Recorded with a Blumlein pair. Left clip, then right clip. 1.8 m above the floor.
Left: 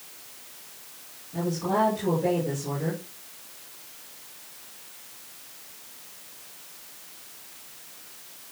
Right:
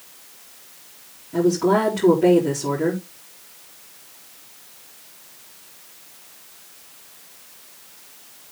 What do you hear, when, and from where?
1.3 s a woman speaking: 30° right, 4 m